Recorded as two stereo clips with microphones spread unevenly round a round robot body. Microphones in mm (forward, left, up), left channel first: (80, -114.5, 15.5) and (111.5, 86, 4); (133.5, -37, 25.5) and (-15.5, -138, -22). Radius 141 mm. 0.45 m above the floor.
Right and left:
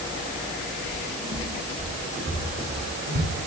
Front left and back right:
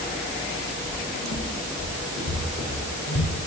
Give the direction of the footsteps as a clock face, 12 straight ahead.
12 o'clock.